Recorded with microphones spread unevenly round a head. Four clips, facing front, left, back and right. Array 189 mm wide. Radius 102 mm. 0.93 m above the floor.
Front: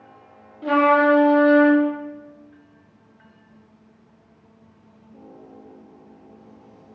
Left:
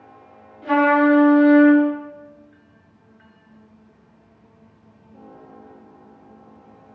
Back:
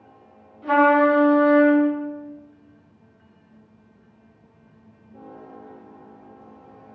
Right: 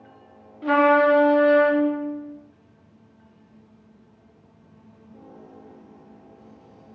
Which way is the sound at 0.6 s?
35° right.